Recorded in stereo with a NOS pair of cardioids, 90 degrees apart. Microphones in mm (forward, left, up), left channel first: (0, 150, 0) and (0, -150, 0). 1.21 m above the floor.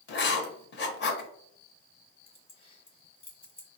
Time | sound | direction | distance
0.1 | writing | 35° left | 0.7 m
2.3 | keys jangling | 20° left | 0.9 m